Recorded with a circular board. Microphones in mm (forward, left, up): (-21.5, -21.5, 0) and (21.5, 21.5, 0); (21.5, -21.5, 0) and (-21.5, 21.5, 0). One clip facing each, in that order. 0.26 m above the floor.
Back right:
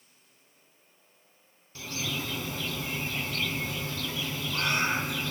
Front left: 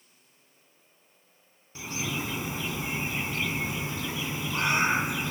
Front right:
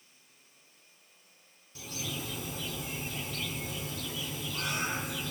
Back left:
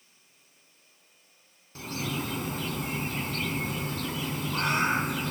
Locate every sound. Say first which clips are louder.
1.8 s a bird: front left 2 dB, back left 7 dB; 110° left, 1.0 m